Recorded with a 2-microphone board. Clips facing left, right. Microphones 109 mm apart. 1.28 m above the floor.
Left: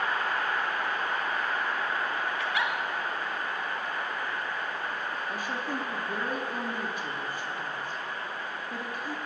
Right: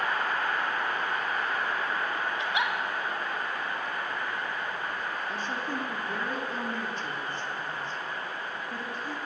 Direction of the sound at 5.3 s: 10° left (ahead or behind).